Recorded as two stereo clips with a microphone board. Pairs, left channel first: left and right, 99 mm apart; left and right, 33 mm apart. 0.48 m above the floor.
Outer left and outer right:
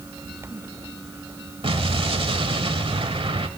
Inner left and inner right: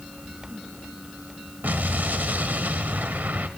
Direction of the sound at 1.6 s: 70° right (ahead or behind).